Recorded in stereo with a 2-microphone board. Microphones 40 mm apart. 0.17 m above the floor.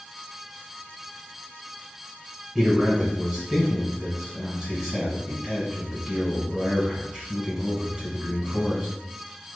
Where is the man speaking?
15° right (ahead or behind), 1.7 m.